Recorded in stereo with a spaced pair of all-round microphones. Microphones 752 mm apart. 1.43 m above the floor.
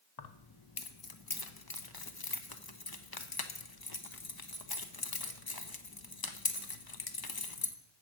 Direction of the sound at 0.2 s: 30° left (ahead or behind).